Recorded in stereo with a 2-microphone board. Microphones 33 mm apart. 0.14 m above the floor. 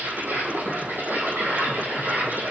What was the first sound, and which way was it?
An insect, 75° right (ahead or behind).